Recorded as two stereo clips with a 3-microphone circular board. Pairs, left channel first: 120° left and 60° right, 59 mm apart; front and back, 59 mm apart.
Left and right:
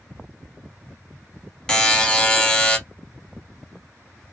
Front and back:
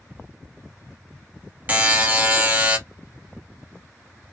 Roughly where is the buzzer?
Behind.